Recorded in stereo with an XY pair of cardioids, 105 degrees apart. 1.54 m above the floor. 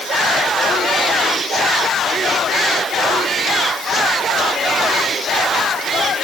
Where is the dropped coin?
I don't hear a dropped coin.